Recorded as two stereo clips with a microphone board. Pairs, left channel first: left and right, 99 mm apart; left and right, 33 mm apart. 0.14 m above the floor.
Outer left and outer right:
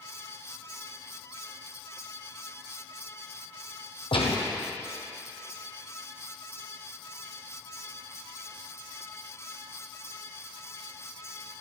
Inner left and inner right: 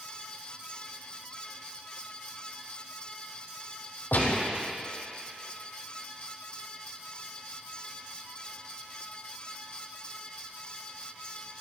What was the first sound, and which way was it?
A gunshot, 65° left (ahead or behind).